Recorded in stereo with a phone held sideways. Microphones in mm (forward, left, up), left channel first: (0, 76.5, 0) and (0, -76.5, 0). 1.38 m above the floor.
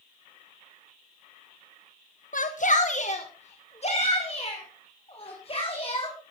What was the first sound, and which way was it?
A shout, 60° left (ahead or behind).